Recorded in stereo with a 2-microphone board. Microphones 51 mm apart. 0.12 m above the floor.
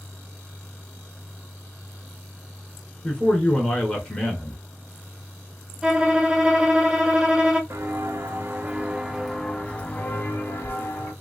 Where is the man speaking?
20° left (ahead or behind), 1.6 m.